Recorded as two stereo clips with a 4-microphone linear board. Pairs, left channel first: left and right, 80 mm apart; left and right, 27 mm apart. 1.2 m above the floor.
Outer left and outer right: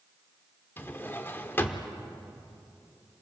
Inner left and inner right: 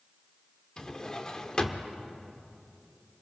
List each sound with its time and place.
0.8 s a drawer: 25° left (ahead or behind), 1.1 m